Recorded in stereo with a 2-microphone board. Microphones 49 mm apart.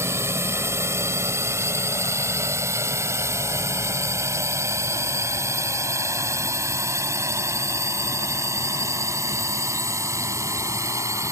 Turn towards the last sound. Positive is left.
turn(degrees=-70)  # may be behind; listen again after turning